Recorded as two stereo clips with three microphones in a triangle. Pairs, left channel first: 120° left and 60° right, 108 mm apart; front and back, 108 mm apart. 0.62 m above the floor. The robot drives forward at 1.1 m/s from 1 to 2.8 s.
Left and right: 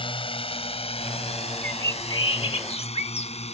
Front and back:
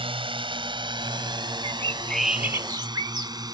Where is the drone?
150° left; by 3.5 s 130° left.